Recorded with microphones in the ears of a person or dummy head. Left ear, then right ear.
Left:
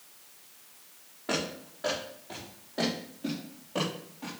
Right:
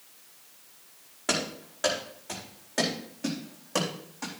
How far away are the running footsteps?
About 5 m.